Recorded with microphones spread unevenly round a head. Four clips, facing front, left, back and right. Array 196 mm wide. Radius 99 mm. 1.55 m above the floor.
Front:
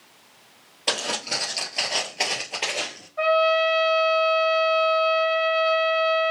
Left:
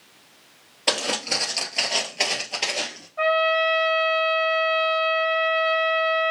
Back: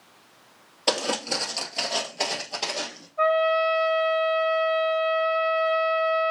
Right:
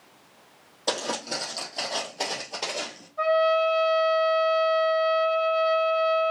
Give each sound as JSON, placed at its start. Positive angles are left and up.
{"t": 0.9, "sound": "footsteps", "azimuth_deg": 135, "distance_m": 1.6}
{"t": 3.2, "sound": "a trumpet", "azimuth_deg": 35, "distance_m": 1.9}